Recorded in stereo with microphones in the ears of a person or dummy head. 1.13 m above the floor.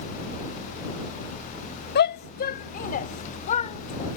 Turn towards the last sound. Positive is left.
turn(degrees=35)  # may be behind; listen again after turning